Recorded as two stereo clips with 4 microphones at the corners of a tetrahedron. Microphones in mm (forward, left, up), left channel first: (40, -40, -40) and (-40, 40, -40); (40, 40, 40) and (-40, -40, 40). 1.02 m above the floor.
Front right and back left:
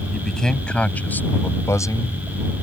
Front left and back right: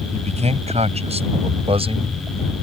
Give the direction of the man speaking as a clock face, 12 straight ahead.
4 o'clock.